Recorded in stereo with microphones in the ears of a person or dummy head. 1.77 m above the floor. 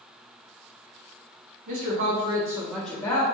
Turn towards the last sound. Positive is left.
turn(degrees=15)  # may be behind; listen again after turning